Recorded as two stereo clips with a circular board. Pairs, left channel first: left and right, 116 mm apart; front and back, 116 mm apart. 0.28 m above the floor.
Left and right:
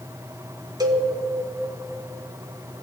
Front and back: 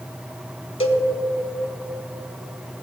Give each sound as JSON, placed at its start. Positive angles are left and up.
{"t": 0.8, "sound": "a cowbell", "azimuth_deg": -35, "distance_m": 0.7}